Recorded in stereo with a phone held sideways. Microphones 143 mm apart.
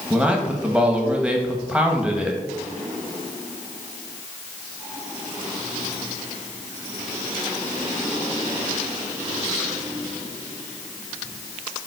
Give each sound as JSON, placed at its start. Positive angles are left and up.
{"t": 0.1, "sound": "a man speaking", "side_deg": -5, "distance_m": 1.7}